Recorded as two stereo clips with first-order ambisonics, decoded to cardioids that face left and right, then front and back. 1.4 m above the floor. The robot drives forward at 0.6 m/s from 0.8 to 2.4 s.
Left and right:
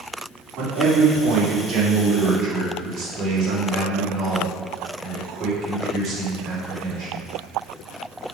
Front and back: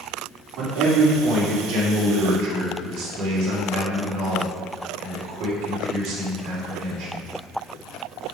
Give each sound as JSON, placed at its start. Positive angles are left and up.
{"t": 0.6, "sound": "a man speaking", "azimuth_deg": -135, "distance_m": 3.5}